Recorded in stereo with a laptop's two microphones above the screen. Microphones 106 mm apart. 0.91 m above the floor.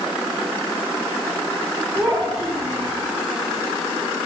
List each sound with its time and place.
1.9 s a child speaking: 15° right (ahead or behind), 2 m